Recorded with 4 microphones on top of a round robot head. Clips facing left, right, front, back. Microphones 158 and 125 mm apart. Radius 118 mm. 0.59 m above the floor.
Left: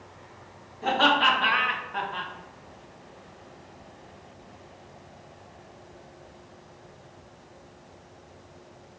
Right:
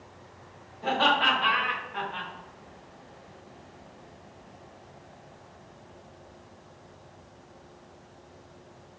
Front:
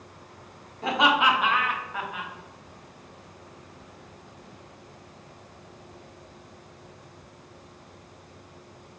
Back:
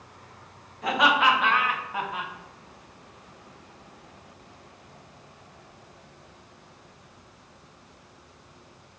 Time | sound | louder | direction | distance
0.8 | laughter | left 2 dB, even | 55° left | 1.4 m